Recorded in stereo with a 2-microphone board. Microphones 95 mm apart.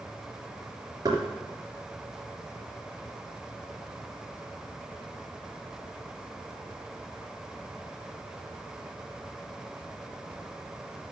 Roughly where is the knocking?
Right.